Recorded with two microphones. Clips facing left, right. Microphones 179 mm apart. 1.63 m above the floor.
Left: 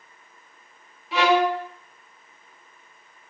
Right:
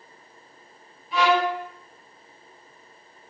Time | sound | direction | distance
1.1 | a violin | 85° left | 0.5 m